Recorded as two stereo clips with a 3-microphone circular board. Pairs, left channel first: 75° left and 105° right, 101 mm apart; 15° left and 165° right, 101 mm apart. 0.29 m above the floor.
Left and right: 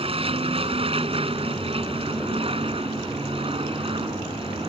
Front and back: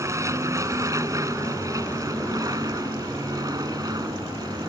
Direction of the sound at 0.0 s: 110° right.